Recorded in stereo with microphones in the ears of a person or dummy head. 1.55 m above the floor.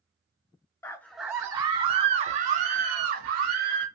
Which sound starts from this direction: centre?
A scream, at 0.8 s.